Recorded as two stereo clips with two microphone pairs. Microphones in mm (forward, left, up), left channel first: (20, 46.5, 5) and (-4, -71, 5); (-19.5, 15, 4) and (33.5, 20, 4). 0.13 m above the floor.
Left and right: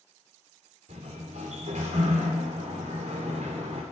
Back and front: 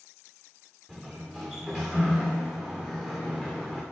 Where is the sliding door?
70° right, 3 m.